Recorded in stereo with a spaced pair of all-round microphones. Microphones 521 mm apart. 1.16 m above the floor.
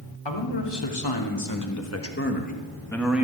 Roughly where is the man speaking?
Left.